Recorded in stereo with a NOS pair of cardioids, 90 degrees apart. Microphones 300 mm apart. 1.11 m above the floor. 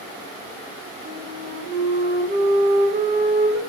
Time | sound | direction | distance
1.1 | a flute | 35° right | 0.8 m